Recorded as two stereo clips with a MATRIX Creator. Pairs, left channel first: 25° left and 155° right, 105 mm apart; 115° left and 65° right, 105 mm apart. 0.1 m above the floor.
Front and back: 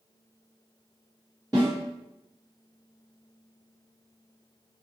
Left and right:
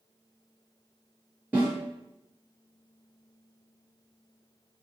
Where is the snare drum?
135° right, 1.9 m.